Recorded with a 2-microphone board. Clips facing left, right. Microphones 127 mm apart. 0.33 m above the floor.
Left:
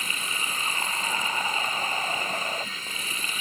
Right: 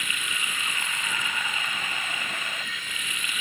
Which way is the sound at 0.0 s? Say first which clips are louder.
Left 1 dB; 35° left (ahead or behind).